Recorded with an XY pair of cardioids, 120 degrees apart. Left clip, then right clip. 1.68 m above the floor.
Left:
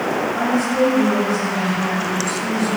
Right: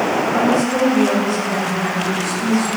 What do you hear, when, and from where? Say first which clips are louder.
0.3 s a woman speaking: right 3 dB; 65° right, 6.5 m